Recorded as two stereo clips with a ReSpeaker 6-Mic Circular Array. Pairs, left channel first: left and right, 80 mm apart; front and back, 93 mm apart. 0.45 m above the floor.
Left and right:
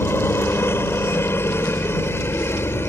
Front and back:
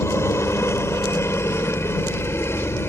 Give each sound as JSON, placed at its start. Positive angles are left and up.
{"t": 0.0, "sound": "a helicopter", "azimuth_deg": 45}